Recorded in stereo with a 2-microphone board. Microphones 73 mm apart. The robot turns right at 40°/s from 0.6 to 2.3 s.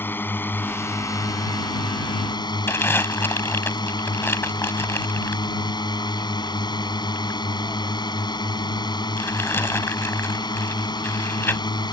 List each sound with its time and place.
0.0 s a drone: 30° left; by 11.9 s 95° left
2.7 s crumpling: 35° left (ahead or behind)